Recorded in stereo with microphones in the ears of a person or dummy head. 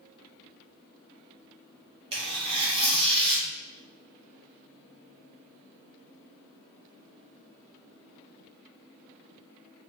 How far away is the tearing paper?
About 1.1 m.